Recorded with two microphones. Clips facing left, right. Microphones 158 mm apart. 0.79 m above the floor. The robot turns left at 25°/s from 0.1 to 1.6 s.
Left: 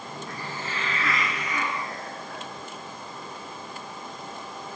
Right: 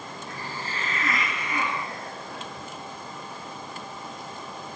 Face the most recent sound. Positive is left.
turn(degrees=-60)